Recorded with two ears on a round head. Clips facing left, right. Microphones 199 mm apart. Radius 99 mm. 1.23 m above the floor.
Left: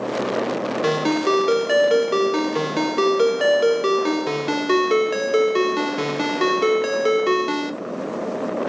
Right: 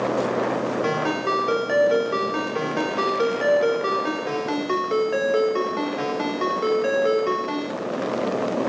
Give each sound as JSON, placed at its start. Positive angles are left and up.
{"t": 0.8, "sound": "a ringtone", "side_deg": 50, "distance_m": 1.0}